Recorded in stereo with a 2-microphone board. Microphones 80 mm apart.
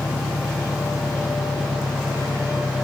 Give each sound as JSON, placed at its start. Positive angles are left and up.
{"t": 0.0, "sound": "an engine running", "side_deg": 65}